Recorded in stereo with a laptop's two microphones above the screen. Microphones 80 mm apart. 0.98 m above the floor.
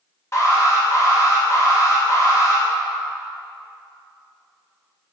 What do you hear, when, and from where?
0.3 s an alarm: 35° left (ahead or behind), 1.4 m